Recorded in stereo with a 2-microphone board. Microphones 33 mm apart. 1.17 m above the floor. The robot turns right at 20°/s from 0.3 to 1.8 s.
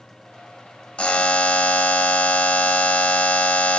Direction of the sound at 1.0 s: 35° left (ahead or behind).